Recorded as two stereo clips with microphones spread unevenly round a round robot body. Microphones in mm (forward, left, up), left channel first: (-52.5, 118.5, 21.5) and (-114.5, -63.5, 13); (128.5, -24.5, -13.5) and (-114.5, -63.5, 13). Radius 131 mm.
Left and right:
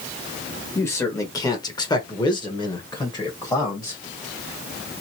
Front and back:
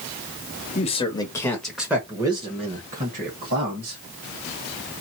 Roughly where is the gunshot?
No gunshot in this recording.